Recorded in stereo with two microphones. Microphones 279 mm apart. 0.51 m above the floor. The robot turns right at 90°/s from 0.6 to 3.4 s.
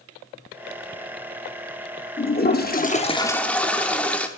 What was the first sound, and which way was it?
A toilet flushing, 60° left.